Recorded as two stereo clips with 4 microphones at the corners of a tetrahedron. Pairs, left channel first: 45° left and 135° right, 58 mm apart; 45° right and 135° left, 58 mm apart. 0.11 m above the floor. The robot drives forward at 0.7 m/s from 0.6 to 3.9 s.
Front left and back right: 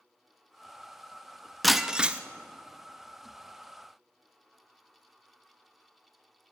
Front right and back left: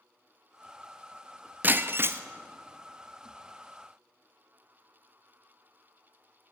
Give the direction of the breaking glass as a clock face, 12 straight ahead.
8 o'clock.